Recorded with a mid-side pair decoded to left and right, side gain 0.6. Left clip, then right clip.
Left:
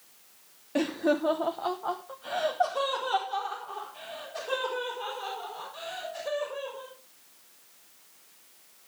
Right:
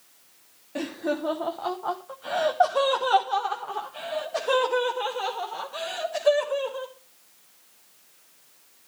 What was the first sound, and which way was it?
Laughter, 25° left.